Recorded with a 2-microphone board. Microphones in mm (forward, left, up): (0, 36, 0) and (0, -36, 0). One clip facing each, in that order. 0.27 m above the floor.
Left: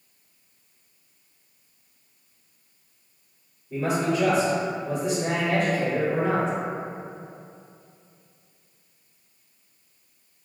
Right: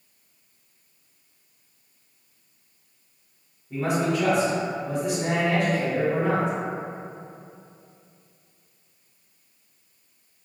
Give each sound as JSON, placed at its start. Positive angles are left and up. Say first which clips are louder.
{"t": 3.7, "sound": "a man speaking", "louder": "even", "side_deg": -45, "distance_m": 1.4}